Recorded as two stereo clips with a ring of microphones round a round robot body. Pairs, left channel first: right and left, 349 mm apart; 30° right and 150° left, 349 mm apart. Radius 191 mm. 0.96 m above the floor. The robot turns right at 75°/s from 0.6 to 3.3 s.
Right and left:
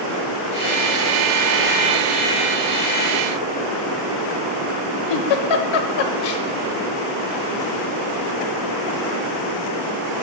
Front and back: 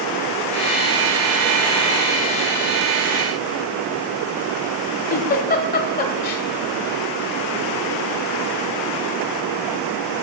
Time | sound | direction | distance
5.1 | a giggle | 95° right | 1.1 m